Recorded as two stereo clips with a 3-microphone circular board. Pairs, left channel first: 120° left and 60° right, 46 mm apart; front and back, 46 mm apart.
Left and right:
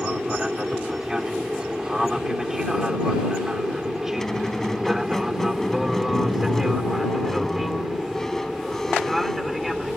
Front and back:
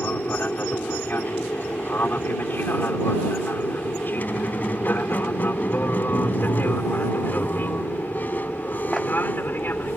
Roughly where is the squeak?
Ahead left.